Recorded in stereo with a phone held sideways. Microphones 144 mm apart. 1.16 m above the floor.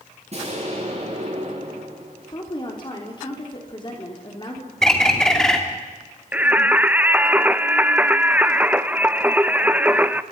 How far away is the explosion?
About 8.5 m.